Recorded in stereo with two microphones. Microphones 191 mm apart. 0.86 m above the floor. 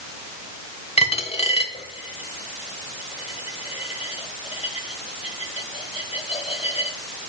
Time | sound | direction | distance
1.0 | a dropped coin | 30° left (ahead or behind) | 0.9 m